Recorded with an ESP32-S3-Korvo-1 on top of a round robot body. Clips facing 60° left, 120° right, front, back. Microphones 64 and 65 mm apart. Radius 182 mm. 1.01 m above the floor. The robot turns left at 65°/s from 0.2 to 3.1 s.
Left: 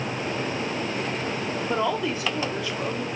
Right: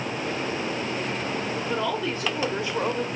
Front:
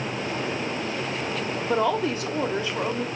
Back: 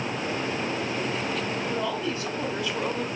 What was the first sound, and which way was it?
A woman speaking, 5° left.